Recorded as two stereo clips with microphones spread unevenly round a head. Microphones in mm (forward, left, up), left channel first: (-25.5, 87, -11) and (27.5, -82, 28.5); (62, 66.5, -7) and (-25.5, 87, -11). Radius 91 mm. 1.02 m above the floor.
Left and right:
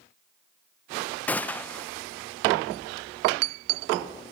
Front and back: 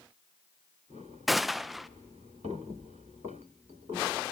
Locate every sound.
1.3 s a gunshot: 85° left, 0.7 m